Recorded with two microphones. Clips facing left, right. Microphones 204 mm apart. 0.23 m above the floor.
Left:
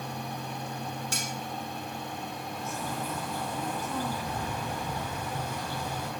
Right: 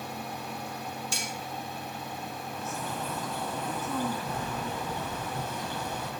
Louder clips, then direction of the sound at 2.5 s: Even; 10° left (ahead or behind).